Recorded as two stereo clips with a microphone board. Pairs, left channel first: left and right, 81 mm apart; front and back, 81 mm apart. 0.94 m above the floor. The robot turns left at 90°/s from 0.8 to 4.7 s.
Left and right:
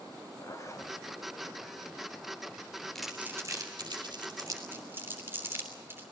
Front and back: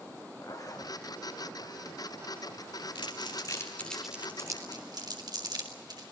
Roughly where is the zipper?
Ahead left.